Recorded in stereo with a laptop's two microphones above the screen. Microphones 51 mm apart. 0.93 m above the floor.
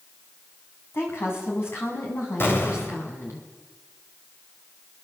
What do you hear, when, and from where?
0.9 s a woman speaking: 45° left (ahead or behind), 7.5 m; by 3.4 s 60° left (ahead or behind), 8.5 m
2.4 s an explosion: 45° left (ahead or behind), 3.5 m